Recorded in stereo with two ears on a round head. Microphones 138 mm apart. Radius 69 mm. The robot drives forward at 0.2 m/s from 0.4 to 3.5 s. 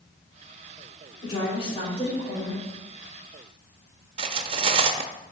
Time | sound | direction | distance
1.2 | a woman speaking | 40° left (ahead or behind) | 3.5 m
4.2 | cutlery clinking | 40° right (ahead or behind) | 0.6 m